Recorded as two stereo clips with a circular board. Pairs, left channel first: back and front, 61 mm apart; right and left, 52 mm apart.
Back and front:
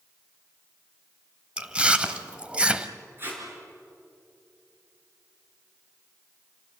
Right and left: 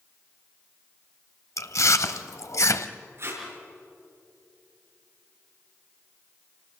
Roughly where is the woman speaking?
No woman speaking in this recording.